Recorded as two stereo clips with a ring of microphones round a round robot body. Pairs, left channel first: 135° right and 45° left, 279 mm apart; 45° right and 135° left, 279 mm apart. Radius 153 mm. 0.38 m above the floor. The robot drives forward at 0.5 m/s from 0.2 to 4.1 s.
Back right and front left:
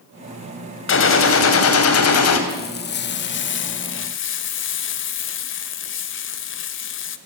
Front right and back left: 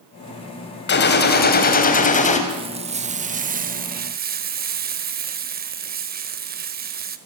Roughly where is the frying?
Behind.